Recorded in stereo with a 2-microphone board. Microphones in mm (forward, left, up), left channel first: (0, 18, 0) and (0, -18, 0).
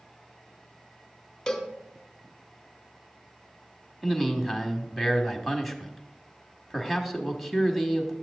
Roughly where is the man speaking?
Centre.